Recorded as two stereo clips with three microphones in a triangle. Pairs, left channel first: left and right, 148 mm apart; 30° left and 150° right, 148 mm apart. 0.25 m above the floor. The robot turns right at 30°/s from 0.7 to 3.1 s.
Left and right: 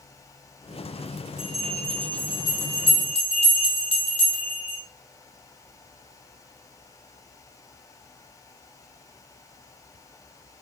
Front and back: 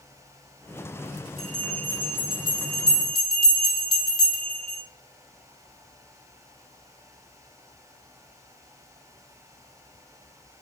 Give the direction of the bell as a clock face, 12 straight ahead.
12 o'clock.